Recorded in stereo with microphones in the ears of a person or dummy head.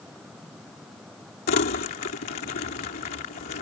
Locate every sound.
1.5 s crumpling: 45° left (ahead or behind)